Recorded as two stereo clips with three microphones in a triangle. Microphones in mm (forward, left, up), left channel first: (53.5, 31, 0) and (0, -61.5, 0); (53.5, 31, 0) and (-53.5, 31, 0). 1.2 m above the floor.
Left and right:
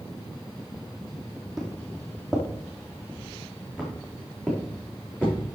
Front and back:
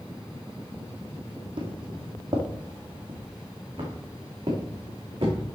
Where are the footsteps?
150° left, 2 m; by 5.4 s 135° left, 5 m.